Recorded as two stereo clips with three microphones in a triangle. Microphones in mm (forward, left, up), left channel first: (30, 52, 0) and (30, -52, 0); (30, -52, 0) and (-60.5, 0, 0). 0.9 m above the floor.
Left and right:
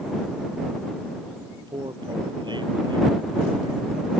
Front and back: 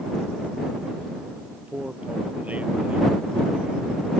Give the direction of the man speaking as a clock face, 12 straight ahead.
4 o'clock.